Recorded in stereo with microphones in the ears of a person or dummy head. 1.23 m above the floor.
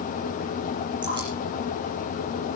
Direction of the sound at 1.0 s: 30° right (ahead or behind).